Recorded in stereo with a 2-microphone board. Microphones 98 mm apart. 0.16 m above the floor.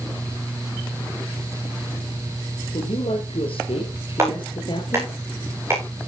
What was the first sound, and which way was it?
A woman speaking, 70° left (ahead or behind).